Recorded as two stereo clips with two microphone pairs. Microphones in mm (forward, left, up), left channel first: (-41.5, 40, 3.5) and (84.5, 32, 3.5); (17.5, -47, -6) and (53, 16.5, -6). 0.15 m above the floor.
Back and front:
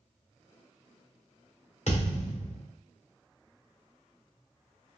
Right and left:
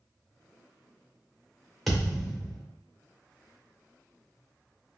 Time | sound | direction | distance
1.9 | a thud | 150° left | 1.7 m